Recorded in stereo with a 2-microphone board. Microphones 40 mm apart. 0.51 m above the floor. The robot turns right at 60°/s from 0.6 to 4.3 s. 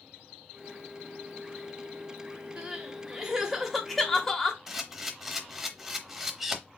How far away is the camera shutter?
About 0.8 m.